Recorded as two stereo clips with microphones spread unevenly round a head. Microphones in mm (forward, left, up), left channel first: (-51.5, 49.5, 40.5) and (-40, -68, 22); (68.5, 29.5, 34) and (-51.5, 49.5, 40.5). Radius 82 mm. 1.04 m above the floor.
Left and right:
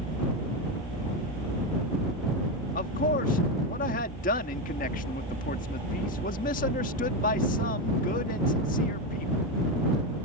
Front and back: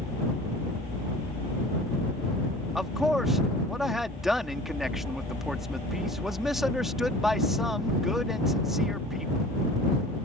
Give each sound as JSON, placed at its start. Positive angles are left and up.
{"t": 2.8, "sound": "a man speaking", "azimuth_deg": 85}